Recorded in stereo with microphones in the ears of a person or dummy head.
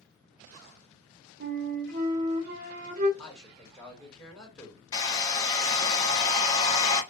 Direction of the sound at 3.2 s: 5° left (ahead or behind).